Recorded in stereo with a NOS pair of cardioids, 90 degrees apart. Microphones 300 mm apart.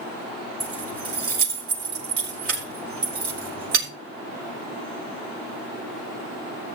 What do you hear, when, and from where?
0.6 s keys jangling: 50° right, 3.5 m